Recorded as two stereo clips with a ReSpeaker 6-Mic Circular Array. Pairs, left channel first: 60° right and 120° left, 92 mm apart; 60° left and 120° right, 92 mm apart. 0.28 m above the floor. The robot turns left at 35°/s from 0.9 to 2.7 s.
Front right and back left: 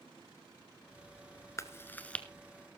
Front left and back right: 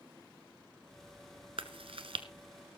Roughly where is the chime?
I don't hear a chime.